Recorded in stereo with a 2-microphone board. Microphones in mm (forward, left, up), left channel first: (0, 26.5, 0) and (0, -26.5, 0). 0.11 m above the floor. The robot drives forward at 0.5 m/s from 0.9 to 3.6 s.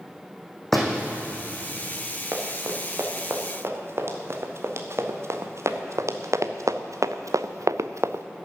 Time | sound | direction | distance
0.7 | a door slam | centre (ahead or behind) | 4 m
2.3 | running footsteps | 55° right (ahead or behind) | 2.5 m